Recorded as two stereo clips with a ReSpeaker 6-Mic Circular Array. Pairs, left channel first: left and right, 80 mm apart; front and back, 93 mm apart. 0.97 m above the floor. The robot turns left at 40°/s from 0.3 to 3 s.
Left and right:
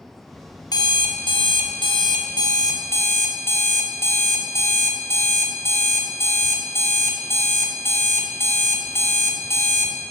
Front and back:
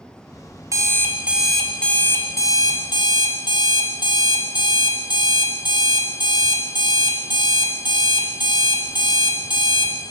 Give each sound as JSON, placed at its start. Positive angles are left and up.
{"t": 0.7, "sound": "an alarm clock", "azimuth_deg": 125, "distance_m": 0.5}